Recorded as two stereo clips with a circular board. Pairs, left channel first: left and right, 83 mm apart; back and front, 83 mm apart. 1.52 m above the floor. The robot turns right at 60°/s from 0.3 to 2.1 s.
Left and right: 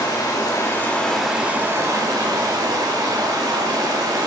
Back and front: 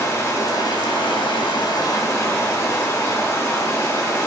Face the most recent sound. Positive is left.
turn(degrees=-125)